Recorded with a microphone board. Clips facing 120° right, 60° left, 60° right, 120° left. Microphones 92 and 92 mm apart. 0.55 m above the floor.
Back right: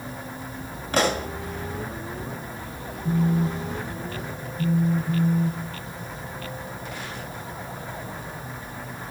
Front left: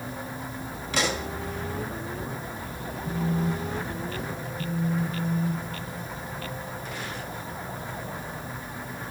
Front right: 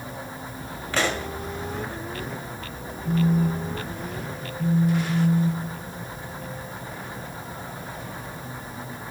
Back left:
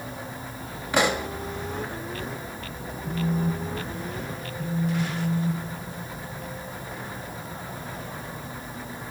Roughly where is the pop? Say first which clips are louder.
Back right 5 dB, back left 3 dB; behind.